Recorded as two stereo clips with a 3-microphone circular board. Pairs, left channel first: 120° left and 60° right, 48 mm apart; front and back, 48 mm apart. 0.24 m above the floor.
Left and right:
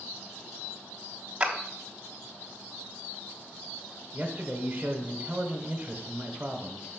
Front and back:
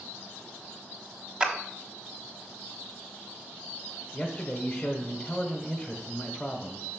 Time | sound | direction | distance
1.4 | a clap | 115° right | 1.0 m
4.1 | a man speaking | 60° right | 1.0 m